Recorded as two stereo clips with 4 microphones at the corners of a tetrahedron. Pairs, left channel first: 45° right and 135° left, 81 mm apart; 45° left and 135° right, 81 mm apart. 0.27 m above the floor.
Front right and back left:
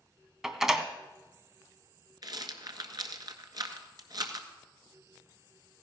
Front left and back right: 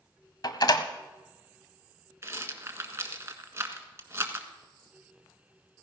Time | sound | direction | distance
0.4 | a door slam | 50° left | 1.2 m
2.2 | a rattle | 170° left | 1.6 m